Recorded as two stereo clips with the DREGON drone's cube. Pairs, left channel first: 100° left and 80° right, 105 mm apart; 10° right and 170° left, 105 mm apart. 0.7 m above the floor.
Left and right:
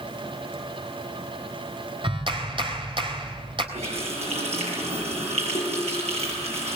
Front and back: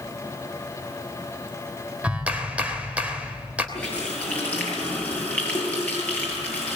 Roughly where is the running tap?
Right.